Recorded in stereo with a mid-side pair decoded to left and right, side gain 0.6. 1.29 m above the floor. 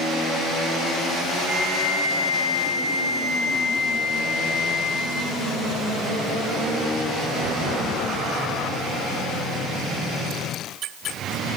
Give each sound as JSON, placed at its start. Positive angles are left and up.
{"t": 1.4, "sound": "a flute", "azimuth_deg": 45, "distance_m": 2.0}